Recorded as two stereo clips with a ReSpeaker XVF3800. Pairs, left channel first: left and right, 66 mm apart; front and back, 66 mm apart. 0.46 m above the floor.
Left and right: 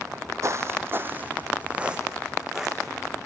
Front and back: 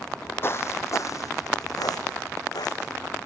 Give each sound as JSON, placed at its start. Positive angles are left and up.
{"t": 0.4, "sound": "footsteps", "azimuth_deg": -50, "distance_m": 1.3}